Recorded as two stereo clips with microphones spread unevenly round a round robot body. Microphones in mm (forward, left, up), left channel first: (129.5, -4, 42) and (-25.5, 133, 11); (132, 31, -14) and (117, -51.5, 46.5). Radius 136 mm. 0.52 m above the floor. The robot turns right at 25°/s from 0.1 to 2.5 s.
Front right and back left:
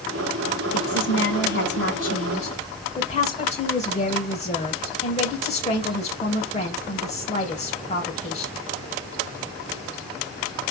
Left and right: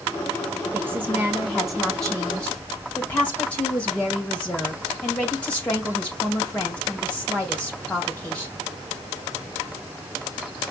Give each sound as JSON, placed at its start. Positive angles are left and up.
{"t": 0.7, "sound": "a woman speaking", "azimuth_deg": -25, "distance_m": 2.5}